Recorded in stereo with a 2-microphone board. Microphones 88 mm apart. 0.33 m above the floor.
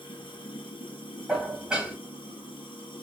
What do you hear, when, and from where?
0.0 s running water: 70° left (ahead or behind), 1.1 m
1.3 s dishes clattering: 5° right (ahead or behind), 1.4 m